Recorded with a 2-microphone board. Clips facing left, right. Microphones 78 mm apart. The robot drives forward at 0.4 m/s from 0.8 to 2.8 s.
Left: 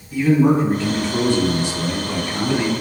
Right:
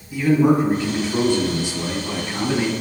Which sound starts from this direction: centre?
A man speaking, at 0.1 s.